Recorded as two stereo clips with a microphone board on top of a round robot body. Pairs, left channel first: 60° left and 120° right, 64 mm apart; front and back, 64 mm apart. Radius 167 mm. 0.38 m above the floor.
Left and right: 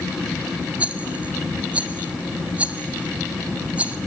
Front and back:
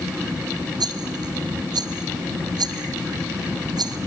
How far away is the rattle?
About 0.6 m.